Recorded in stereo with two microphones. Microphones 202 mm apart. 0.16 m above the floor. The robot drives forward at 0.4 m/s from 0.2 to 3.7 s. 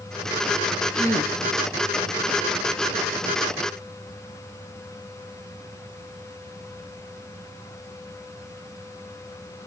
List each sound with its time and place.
0.9 s a gasp: 15° left (ahead or behind), 1.7 m